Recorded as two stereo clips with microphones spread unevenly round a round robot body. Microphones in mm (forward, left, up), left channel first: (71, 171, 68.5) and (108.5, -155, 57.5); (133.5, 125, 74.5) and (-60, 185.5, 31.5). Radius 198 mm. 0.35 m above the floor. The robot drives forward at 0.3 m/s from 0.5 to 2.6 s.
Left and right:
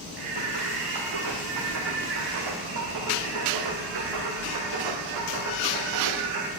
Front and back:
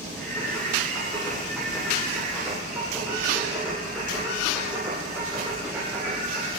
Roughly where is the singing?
Right.